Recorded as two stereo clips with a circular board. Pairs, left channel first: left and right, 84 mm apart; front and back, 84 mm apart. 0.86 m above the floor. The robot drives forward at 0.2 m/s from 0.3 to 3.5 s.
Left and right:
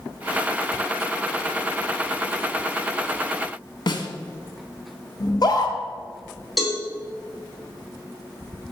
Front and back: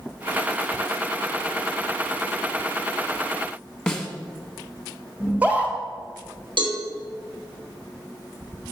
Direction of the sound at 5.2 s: 110° left.